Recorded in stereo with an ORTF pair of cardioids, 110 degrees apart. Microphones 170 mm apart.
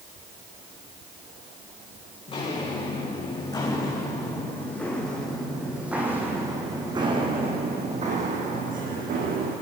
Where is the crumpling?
No crumpling in this recording.